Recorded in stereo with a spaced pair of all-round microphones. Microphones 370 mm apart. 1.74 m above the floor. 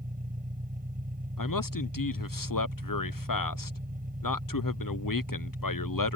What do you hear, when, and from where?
0.0 s an engine running: 20° right (ahead or behind)
1.4 s a man speaking: 60° left (ahead or behind)